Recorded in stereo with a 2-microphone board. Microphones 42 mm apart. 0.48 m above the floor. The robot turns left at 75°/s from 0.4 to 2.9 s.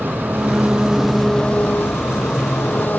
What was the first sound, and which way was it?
An engine running, 125° right.